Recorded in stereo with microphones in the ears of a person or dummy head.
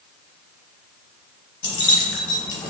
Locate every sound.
1.6 s keys jangling: 10° left (ahead or behind), 1.1 m